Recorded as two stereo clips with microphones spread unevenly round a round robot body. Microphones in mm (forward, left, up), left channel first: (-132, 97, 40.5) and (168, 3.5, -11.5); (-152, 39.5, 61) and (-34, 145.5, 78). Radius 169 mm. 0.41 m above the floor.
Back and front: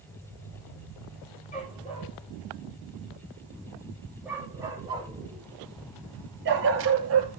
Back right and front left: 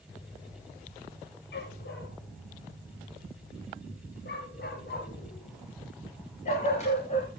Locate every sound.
1.5 s a dog barking: 125° right, 4 m; by 7.4 s 70° right, 3 m